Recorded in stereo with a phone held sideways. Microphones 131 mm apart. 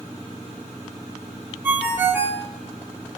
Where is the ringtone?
15° right (ahead or behind), 0.6 m.